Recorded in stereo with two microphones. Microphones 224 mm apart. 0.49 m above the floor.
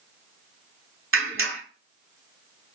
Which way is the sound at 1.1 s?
65° right (ahead or behind).